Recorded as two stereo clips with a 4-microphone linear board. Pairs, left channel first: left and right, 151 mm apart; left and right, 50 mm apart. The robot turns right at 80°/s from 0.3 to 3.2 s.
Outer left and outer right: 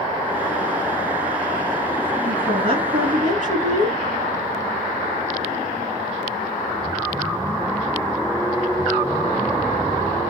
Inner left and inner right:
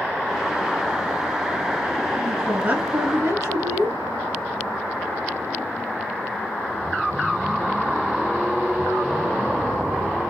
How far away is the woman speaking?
About 2.5 m.